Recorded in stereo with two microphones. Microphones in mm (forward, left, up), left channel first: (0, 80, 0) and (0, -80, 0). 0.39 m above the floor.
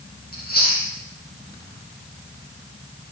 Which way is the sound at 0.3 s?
85° left.